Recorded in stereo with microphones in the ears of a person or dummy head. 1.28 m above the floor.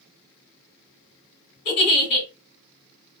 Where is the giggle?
45° left (ahead or behind), 1.6 m.